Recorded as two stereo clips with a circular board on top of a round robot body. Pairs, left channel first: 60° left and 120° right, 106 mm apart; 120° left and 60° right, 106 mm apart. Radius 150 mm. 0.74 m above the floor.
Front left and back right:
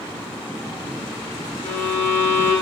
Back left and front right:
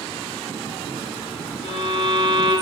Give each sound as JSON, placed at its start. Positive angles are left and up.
{"t": 1.6, "sound": "a violin", "azimuth_deg": 125, "distance_m": 2.5}